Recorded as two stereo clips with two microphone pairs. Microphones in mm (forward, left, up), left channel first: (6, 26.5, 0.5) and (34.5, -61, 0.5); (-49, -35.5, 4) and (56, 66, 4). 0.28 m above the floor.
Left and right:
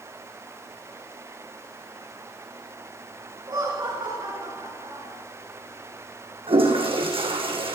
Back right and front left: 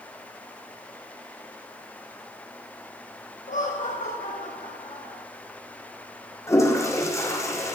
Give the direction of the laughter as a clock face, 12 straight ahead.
4 o'clock.